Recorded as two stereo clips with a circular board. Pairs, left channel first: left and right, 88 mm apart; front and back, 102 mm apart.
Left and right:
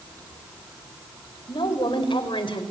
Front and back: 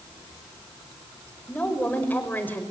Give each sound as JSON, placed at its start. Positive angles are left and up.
{"t": 1.5, "sound": "a woman speaking", "azimuth_deg": 75, "distance_m": 5.0}